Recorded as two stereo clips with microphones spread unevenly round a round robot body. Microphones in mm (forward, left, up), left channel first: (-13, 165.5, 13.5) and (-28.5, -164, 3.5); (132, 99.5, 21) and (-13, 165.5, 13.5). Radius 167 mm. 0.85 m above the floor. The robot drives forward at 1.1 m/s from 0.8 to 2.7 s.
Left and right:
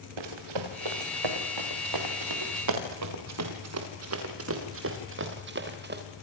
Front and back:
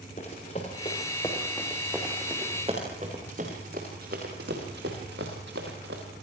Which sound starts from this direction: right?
Running footsteps, at 0.2 s.